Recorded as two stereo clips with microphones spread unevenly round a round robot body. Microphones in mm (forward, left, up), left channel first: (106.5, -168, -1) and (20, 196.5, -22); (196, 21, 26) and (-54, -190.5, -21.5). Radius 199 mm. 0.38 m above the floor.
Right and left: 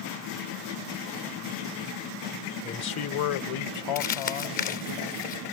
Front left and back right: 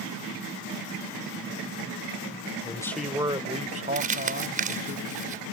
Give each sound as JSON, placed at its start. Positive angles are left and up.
{"t": 2.6, "sound": "a man speaking", "azimuth_deg": -25}
{"t": 4.0, "sound": "crumpling", "azimuth_deg": -130}